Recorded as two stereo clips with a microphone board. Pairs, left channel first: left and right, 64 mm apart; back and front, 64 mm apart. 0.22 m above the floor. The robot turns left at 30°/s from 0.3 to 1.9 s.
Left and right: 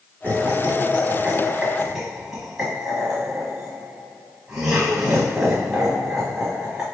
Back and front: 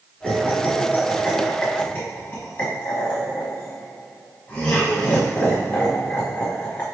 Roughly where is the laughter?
Behind right.